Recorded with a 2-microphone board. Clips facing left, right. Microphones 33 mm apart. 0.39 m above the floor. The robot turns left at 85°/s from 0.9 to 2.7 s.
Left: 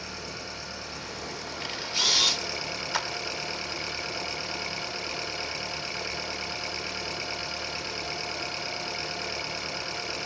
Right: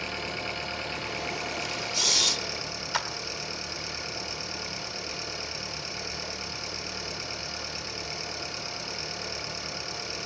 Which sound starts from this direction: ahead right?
An engine running, at 0.0 s.